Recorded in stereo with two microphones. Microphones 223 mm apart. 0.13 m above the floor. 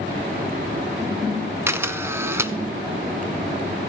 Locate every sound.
1.7 s a camera shutter: 10° right (ahead or behind), 0.6 m